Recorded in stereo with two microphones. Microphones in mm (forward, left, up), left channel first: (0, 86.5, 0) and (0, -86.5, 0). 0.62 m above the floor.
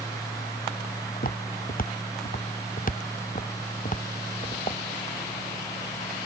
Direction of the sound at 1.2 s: 55° left (ahead or behind).